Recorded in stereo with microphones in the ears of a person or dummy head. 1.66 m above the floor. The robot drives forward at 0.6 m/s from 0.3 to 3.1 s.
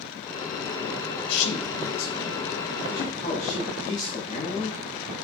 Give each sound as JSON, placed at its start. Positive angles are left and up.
{"t": 1.3, "sound": "a man speaking", "side_deg": 65, "distance_m": 0.8}